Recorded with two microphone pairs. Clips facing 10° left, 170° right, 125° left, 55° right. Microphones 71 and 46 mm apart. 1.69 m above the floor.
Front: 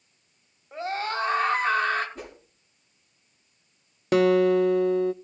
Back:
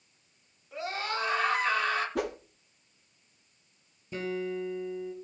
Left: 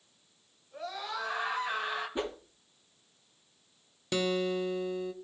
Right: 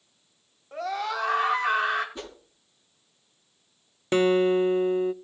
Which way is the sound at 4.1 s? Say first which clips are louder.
Front 15 dB, right 10 dB; straight ahead.